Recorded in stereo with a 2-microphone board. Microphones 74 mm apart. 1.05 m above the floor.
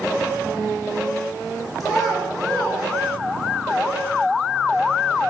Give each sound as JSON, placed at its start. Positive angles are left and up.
{"t": 1.8, "sound": "a child speaking", "side_deg": -5, "distance_m": 1.4}